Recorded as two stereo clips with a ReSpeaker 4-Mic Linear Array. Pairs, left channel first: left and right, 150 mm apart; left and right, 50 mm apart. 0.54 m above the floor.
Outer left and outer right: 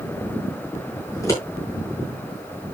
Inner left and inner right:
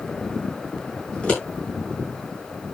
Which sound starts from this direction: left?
Scissors, at 1.1 s.